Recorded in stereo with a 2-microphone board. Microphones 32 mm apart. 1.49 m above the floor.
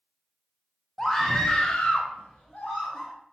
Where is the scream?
10° left (ahead or behind), 0.7 m; by 3.1 s 35° left (ahead or behind), 0.8 m.